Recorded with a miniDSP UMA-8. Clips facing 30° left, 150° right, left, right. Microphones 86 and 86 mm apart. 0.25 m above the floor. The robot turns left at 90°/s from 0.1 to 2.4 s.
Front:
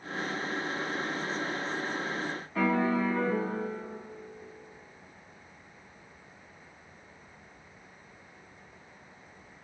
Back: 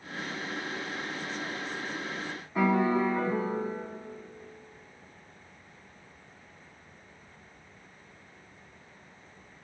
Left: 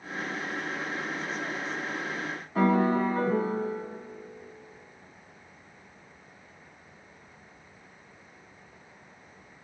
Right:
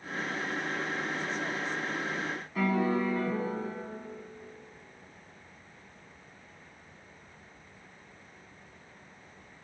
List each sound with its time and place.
2.5 s a piano: 140° left, 2 m